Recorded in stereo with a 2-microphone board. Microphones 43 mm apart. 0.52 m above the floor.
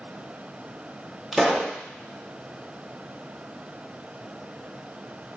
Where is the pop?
5° right (ahead or behind), 0.7 m.